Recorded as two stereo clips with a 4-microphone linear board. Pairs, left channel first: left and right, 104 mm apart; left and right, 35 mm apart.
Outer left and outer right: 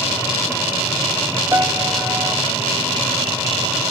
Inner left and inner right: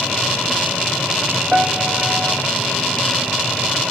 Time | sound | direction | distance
1.5 | a piano | 25° right (ahead or behind) | ?